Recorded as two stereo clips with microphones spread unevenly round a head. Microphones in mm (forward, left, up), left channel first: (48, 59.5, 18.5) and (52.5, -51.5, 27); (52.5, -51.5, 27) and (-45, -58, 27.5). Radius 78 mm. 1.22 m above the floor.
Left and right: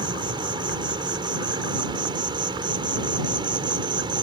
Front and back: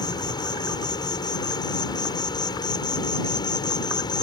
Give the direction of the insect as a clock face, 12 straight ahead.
1 o'clock.